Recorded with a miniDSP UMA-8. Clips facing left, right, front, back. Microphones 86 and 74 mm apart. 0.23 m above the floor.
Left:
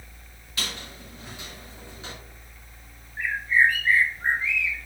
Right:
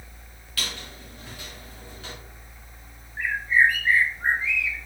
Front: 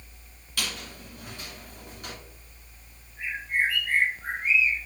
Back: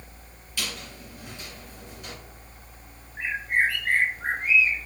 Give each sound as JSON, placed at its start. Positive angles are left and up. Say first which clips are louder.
{"t": 0.6, "sound": "a squeak", "louder": "even, front 1 dB", "azimuth_deg": 25, "distance_m": 2.0}
{"t": 3.2, "sound": "a bird", "louder": "right 1 dB, back 3 dB", "azimuth_deg": -165, "distance_m": 0.9}